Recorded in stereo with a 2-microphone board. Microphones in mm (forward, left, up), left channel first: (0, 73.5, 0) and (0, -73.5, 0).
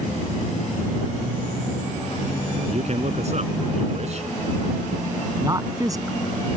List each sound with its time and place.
2.7 s a man speaking: 50° right (ahead or behind)
5.4 s a man speaking: 25° right (ahead or behind)